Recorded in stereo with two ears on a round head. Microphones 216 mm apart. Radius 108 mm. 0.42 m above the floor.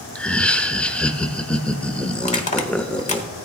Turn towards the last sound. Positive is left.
turn(degrees=30)  # may be behind; listen again after turning